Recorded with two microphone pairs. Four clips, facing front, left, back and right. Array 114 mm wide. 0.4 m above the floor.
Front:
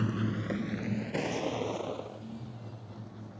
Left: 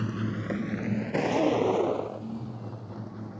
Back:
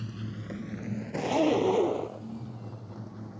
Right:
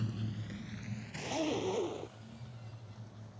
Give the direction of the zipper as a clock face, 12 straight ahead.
7 o'clock.